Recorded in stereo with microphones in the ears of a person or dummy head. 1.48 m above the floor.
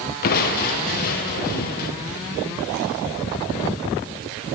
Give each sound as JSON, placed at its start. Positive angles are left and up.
{"t": 0.2, "sound": "crushing", "side_deg": 50, "distance_m": 0.8}